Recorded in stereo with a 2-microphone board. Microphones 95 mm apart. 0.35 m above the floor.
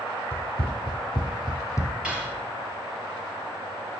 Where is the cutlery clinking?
10° right (ahead or behind), 3.5 m.